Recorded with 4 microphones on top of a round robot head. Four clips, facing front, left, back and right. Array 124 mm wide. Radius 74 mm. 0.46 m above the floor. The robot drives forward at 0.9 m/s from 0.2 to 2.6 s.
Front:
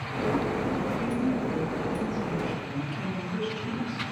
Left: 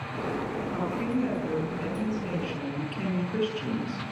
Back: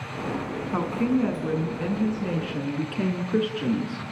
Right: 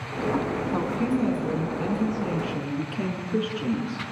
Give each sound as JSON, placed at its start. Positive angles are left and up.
{"t": 0.7, "sound": "a woman speaking", "azimuth_deg": -145, "distance_m": 4.5}